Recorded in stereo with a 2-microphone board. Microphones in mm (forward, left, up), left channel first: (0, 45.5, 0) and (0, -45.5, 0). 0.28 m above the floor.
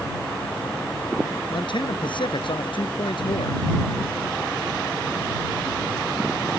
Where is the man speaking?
65° left (ahead or behind).